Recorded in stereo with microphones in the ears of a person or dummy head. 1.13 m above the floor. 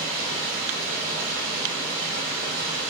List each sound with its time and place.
0.0 s running water: 60° right (ahead or behind), 1.7 m